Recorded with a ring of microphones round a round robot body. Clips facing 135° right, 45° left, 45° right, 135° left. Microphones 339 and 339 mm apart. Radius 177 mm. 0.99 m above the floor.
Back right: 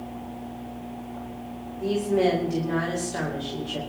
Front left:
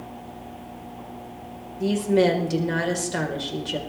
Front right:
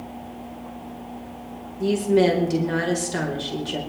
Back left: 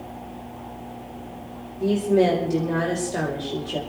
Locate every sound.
1.8 s a woman speaking: 15° left, 4.5 m